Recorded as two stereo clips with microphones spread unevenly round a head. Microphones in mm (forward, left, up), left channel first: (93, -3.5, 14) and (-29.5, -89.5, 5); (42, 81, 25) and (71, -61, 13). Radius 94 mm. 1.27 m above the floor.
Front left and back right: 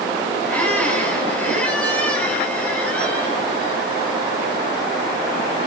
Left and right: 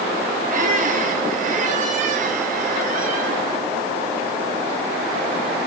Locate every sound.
0.5 s a squeak: 45° right, 8.5 m